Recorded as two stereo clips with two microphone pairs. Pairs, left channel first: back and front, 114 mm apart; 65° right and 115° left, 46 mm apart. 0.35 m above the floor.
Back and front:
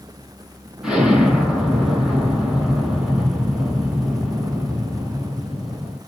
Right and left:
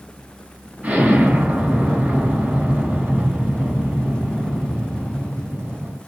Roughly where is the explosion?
Left.